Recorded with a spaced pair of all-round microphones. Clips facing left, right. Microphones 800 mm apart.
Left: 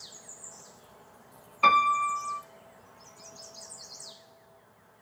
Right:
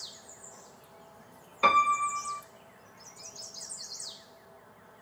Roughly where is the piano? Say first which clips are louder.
Even; centre.